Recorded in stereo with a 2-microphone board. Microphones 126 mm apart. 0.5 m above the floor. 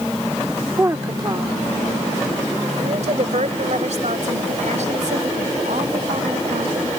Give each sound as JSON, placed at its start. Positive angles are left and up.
{"t": 0.8, "sound": "a woman speaking", "side_deg": -20}